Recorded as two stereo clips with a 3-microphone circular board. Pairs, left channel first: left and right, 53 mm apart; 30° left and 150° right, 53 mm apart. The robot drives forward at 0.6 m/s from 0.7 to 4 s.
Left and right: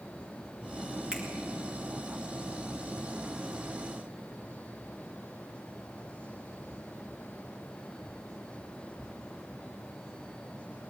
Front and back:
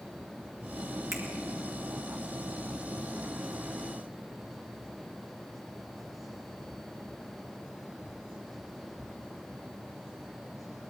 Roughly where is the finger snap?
Behind.